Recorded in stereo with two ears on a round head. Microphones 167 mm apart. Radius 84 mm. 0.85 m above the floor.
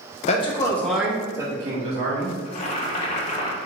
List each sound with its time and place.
0.3 s a man speaking: 35° left (ahead or behind), 0.8 m; by 2.4 s 35° right (ahead or behind), 1.8 m
2.5 s boiling: 40° left (ahead or behind), 0.9 m